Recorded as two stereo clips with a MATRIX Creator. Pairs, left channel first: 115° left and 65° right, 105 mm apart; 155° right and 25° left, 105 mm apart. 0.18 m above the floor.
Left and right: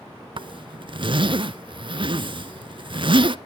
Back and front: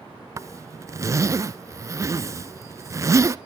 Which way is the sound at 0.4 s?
35° right.